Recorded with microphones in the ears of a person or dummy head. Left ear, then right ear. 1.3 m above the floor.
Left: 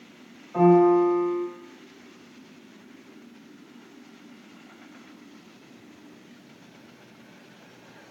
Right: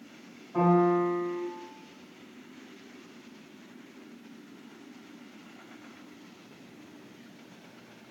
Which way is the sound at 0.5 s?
30° left (ahead or behind).